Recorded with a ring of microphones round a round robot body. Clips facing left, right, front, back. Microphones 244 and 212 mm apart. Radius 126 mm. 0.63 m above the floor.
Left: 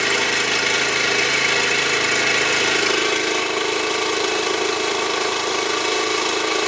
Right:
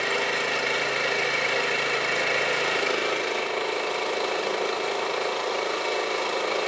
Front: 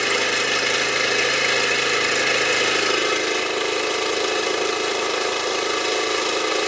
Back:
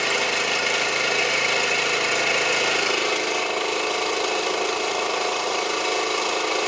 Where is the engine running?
75° left, 1.2 m.